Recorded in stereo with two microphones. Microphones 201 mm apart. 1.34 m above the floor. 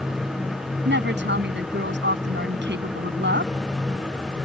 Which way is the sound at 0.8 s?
65° right (ahead or behind).